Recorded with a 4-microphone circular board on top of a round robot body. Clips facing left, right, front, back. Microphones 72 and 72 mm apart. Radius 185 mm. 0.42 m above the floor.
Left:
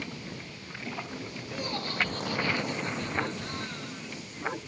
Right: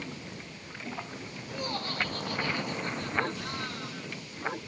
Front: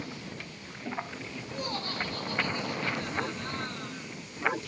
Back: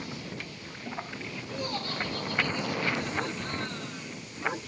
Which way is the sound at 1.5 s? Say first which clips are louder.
Even, back 1 dB; 40° right.